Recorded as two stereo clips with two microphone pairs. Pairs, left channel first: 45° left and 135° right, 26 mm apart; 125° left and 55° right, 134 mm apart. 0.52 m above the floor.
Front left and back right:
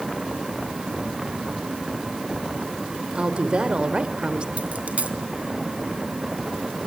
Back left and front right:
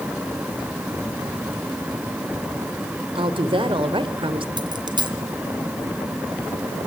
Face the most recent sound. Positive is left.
turn(degrees=-110)